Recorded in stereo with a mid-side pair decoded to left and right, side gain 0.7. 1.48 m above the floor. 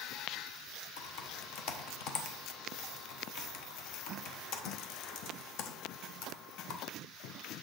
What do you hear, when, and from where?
1.0 s typing on a keyboard: 60° left, 1.1 m